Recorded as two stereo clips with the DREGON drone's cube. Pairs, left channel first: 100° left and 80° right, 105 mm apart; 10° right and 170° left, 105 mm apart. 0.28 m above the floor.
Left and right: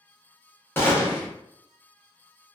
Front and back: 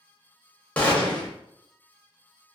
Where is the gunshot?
50° left, 0.7 m.